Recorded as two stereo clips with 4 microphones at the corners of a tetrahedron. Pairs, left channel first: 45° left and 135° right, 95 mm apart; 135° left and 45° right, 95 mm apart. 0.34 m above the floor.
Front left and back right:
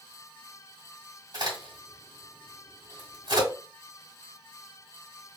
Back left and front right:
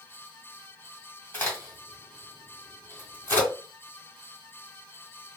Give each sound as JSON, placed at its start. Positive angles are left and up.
{"t": 1.3, "sound": "a crack", "azimuth_deg": -160, "distance_m": 2.5}